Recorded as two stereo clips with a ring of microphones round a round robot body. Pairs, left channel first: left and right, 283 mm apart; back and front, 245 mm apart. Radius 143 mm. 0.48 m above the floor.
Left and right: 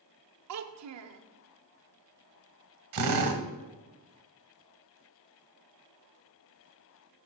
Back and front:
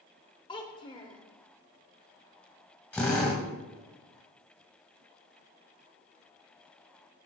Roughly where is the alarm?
I don't hear an alarm.